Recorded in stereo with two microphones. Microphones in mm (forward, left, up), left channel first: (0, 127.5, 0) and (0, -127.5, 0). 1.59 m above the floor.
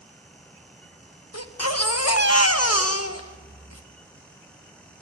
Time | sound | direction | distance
1.3 | a baby crying | 70° left (ahead or behind) | 1.4 m